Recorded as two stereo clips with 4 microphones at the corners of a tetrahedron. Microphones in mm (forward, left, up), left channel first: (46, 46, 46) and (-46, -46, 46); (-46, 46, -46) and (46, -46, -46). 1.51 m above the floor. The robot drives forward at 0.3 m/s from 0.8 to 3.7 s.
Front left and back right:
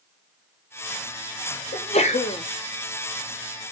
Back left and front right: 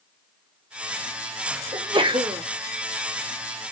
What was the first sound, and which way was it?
A sneeze, 5° left.